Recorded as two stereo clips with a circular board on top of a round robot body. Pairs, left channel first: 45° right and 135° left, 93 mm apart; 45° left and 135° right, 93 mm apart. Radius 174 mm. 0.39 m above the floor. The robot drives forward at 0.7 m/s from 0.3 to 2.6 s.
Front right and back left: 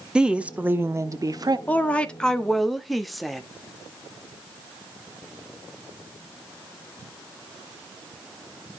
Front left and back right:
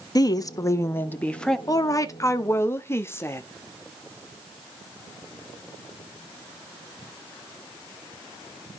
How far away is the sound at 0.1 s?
About 1.2 m.